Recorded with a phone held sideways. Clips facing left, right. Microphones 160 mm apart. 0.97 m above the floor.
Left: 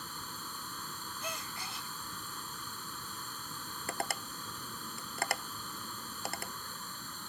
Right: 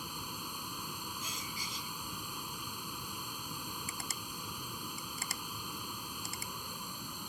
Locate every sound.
0.0 s running water: 15° right (ahead or behind)
1.2 s a gasp: 60° left (ahead or behind)
3.9 s tapping: 65° left (ahead or behind)